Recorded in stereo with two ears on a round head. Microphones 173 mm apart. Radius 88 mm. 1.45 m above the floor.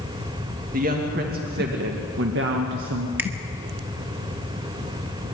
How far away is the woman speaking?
About 2 m.